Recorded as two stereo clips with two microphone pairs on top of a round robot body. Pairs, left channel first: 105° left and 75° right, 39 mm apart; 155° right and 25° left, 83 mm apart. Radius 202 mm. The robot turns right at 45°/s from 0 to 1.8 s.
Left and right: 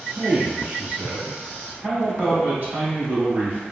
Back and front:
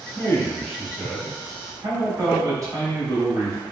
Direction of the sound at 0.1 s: 95° right.